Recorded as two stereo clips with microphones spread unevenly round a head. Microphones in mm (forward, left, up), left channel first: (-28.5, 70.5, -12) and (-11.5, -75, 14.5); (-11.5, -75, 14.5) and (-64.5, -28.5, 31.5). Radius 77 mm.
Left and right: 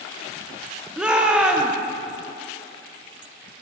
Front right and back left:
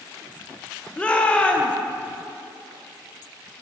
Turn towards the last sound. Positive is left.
turn(degrees=-125)